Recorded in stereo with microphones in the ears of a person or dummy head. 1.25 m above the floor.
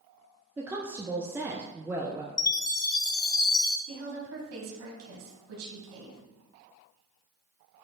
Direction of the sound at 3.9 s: 80° right.